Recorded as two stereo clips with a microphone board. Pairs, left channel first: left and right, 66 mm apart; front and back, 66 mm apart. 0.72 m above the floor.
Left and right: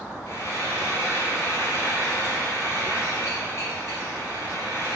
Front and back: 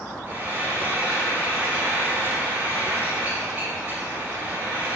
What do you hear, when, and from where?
0.3 s frying: 125° left, 1.9 m